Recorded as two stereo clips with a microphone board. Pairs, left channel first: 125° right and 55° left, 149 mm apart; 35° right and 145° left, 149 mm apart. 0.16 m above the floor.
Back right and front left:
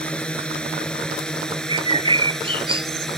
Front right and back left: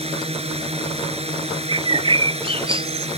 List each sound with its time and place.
0.0 s a drone: 155° left; by 3.2 s 150° left
1.7 s a bird: 100° left